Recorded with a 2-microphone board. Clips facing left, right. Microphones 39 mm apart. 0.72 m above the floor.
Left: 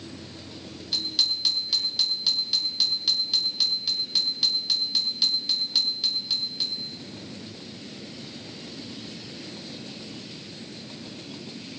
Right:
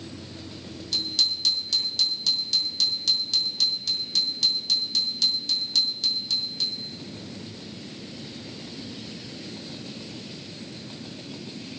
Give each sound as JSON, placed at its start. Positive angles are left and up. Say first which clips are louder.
{"t": 0.9, "sound": "a bicycle bell", "louder": "even", "side_deg": 15, "distance_m": 6.0}